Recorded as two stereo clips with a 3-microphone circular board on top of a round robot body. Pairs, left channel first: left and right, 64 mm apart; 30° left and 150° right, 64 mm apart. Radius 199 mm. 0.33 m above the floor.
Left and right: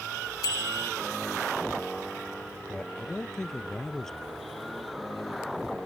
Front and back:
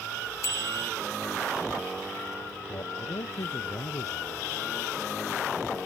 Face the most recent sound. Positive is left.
turn(degrees=10)